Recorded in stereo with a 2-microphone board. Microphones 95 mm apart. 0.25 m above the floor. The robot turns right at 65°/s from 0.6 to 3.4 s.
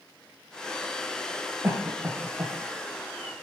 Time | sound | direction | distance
1.6 | a cough | 30° right (ahead or behind) | 1.4 m